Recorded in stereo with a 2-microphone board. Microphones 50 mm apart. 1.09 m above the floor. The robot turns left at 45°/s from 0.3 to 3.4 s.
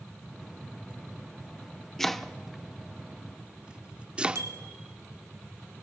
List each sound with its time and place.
2.0 s chopping: 10° left (ahead or behind), 0.7 m; by 4.5 s 20° right (ahead or behind), 0.7 m
4.3 s a bicycle bell: 85° right, 2 m